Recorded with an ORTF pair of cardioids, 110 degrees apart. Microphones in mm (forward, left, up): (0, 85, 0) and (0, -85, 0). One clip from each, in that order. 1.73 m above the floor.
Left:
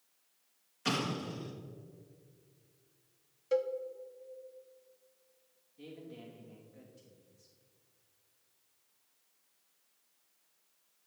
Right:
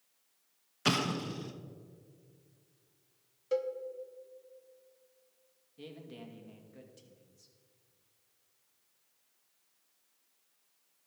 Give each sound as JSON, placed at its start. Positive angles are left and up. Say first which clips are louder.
{"t": 0.8, "sound": "an explosion", "louder": "right 3 dB", "azimuth_deg": -40, "distance_m": 1.1}
{"t": 3.5, "sound": "a cowbell", "louder": "left 1 dB", "azimuth_deg": 0, "distance_m": 0.8}
{"t": 5.8, "sound": "a man speaking", "louder": "right 1 dB", "azimuth_deg": -55, "distance_m": 2.5}